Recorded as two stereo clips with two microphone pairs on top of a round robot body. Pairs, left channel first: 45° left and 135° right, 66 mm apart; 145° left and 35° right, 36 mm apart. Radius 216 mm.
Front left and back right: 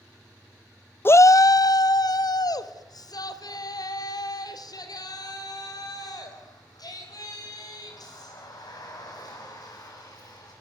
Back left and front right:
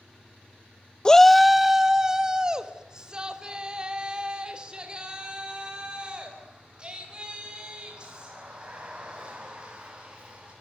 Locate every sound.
1.1 s a shout: 85° left, 0.5 m; by 10.5 s 25° left, 9 m